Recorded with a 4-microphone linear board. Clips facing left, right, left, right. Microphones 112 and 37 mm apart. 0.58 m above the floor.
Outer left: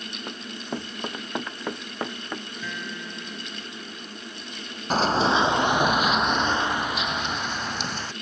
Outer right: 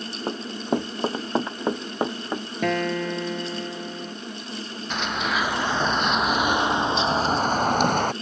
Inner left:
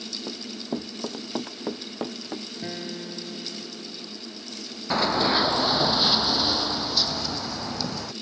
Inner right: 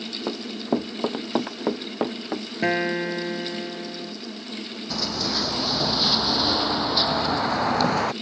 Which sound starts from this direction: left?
Running footsteps, at 4.9 s.